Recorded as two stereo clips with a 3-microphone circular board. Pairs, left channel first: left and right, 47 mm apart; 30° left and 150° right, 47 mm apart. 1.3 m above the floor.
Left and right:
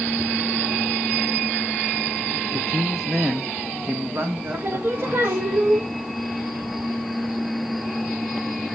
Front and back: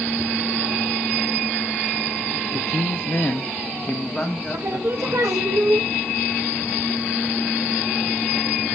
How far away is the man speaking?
About 0.5 m.